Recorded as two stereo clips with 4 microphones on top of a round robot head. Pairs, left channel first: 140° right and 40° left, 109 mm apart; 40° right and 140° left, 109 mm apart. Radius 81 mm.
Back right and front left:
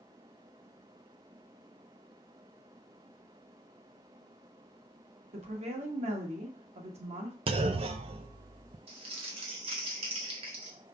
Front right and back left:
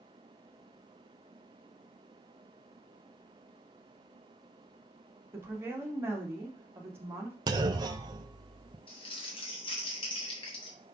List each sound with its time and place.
5.3 s a woman speaking: 70° left, 1.8 m
7.5 s a clunk: 85° left, 0.6 m
8.9 s crumpling: straight ahead, 1.9 m